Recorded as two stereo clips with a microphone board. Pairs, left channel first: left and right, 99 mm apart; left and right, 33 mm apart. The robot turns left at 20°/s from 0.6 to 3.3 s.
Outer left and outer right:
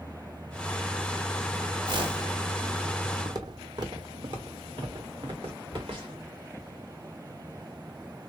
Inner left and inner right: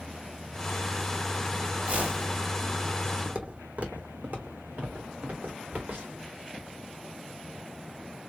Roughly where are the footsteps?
Right.